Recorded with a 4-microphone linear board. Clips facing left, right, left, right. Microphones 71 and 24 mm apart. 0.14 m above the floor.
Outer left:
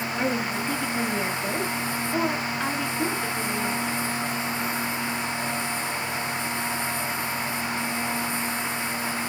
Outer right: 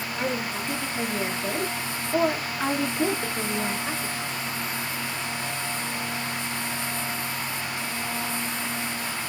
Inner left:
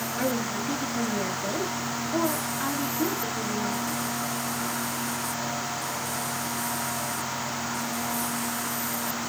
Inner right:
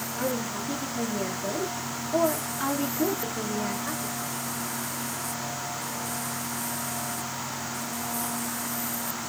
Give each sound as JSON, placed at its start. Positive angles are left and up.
{"t": 0.2, "sound": "a woman speaking", "side_deg": 30, "distance_m": 3.0}